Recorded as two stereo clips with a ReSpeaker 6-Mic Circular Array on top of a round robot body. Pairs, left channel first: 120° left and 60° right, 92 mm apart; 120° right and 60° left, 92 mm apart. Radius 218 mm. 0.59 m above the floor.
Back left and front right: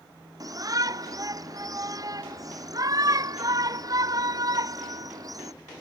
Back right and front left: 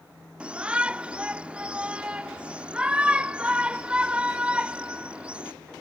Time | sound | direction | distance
0.4 | a shout | 15° right | ?